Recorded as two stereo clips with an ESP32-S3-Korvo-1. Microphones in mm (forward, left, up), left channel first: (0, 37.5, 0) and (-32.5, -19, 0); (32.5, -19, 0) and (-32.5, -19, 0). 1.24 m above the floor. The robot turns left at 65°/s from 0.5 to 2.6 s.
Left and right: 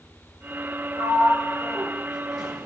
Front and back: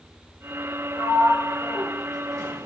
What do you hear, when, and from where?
1.0 s a sliding door: 125° right, 3.5 m; by 2.7 s 130° left, 3.5 m